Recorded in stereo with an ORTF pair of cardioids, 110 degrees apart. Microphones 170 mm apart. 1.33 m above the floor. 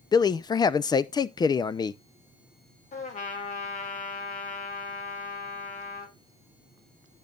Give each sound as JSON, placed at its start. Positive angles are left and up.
{"t": 0.1, "sound": "a man speaking", "azimuth_deg": 25, "distance_m": 0.5}
{"t": 2.9, "sound": "a trumpet", "azimuth_deg": 45, "distance_m": 2.5}